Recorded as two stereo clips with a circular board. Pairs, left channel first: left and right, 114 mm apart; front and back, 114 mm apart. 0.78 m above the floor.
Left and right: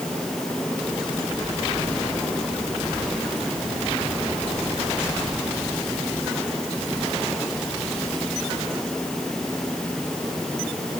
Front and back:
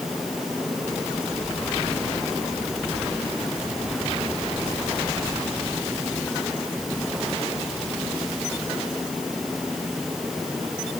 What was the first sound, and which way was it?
Only background noise.